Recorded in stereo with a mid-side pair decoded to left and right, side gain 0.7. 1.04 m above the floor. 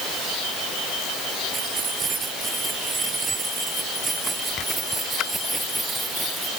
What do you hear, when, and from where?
1.5 s keys jangling: 30° right; by 6.5 s 10° right